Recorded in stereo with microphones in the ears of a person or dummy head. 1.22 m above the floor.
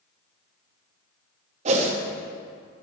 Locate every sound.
1.6 s a whoosh: 40° right (ahead or behind), 1.2 m